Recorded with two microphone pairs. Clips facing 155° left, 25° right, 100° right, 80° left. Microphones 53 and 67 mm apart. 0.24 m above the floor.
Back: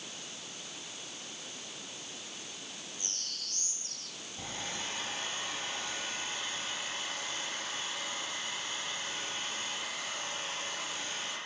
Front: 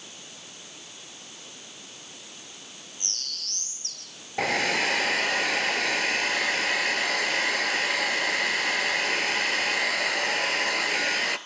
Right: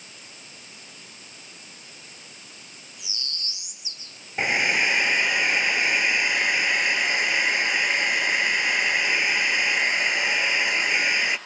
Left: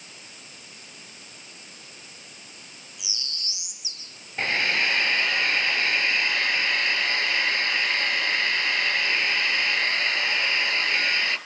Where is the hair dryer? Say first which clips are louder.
Front 17 dB, right 2 dB; 25° right, 1.6 m.